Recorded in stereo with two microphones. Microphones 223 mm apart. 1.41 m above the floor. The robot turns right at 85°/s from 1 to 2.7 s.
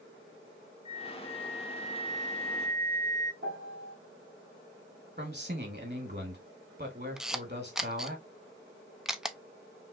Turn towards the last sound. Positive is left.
turn(degrees=0)  # may be behind; listen again after turning